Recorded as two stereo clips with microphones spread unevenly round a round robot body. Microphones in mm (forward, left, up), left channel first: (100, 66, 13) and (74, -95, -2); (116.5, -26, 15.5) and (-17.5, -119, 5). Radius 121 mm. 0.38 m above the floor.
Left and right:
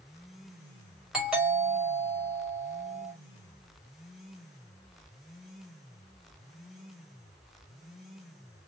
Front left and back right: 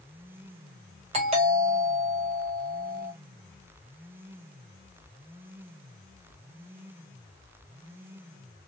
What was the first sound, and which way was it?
A doorbell, straight behind.